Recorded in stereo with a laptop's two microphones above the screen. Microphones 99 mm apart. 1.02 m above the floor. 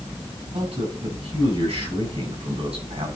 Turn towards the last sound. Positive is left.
turn(degrees=-85)